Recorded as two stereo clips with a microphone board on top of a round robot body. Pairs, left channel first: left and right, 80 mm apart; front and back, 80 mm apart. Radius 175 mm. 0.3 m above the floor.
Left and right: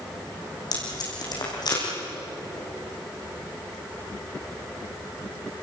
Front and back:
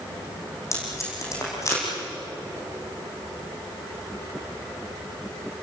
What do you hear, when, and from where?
0.7 s tape being pulled: 55° left, 7.5 m